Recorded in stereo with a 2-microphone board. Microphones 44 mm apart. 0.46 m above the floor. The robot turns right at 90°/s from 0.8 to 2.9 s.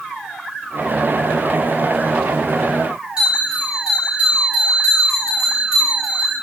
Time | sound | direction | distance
3.2 | a bell | 20° right (ahead or behind) | 7.5 m